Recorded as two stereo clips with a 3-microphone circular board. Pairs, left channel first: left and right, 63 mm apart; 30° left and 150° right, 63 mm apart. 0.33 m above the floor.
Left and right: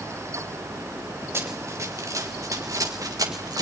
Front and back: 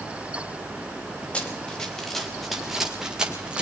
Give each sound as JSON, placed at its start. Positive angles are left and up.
{"t": 1.3, "sound": "running footsteps", "azimuth_deg": -40, "distance_m": 2.5}